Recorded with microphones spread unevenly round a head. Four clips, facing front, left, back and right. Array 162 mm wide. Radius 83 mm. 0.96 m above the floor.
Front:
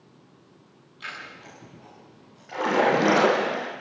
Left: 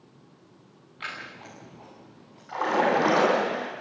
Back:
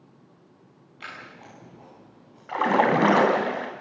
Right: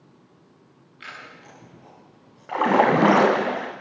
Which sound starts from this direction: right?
A splash, at 2.5 s.